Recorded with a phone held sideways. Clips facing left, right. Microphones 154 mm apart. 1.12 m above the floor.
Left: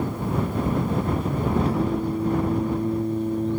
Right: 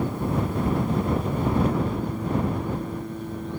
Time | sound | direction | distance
1.6 | singing | 35° left (ahead or behind) | ?